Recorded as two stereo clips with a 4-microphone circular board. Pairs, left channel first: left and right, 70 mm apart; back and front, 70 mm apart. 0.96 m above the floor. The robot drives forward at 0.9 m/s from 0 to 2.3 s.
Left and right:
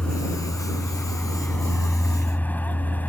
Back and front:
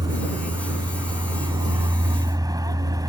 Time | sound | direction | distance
0.0 | a vehicle | 15° left | ?